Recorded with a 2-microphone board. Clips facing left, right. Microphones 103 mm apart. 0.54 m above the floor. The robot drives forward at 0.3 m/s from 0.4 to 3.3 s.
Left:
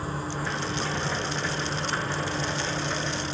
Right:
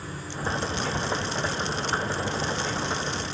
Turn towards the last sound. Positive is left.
turn(degrees=55)  # may be behind; listen again after turning